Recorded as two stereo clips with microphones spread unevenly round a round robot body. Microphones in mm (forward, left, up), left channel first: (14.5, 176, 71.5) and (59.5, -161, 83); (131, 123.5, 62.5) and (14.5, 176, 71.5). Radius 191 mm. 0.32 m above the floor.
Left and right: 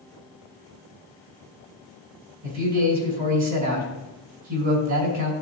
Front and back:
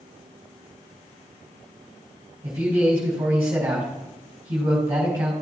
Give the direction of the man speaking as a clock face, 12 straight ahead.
4 o'clock.